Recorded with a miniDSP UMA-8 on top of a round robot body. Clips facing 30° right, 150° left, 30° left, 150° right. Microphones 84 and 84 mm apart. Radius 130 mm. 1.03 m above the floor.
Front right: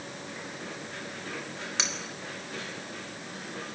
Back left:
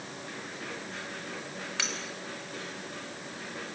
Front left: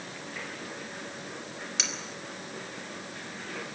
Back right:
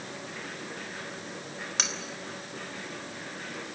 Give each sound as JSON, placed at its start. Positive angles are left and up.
{"t": 1.8, "sound": "cutlery clinking", "azimuth_deg": -100, "distance_m": 3.5}